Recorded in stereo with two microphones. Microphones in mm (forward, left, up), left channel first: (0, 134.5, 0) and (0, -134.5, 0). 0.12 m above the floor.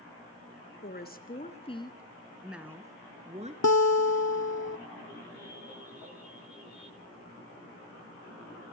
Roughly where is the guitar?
Left.